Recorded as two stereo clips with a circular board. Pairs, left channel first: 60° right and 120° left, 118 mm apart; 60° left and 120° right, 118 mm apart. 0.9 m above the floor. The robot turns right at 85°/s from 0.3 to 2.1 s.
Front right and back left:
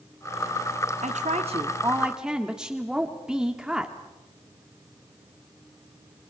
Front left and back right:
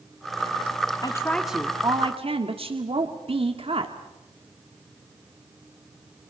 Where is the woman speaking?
110° left, 1.8 m; by 4.0 s 155° right, 1.8 m.